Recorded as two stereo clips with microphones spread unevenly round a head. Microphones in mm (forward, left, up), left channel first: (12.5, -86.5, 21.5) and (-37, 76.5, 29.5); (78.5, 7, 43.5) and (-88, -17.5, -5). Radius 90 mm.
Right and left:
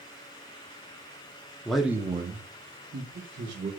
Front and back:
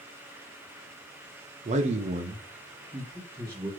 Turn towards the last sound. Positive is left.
turn(degrees=115)